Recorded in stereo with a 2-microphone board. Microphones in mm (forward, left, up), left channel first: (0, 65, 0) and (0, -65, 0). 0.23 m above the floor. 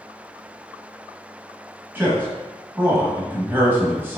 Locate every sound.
1.9 s a man speaking: 15° right (ahead or behind), 1.1 m